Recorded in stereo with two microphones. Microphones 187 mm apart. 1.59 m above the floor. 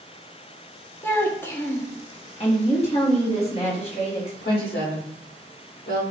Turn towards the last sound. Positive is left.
turn(degrees=60)  # may be behind; listen again after turning